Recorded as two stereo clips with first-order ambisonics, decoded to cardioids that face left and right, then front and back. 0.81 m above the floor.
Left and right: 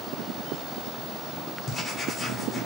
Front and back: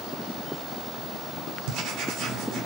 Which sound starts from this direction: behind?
Writing, at 1.7 s.